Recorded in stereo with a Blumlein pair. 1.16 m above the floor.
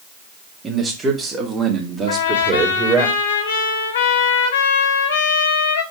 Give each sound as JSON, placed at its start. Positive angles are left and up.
{"t": 0.6, "sound": "a man speaking", "azimuth_deg": -15, "distance_m": 2.5}
{"t": 2.1, "sound": "a trumpet", "azimuth_deg": 60, "distance_m": 2.5}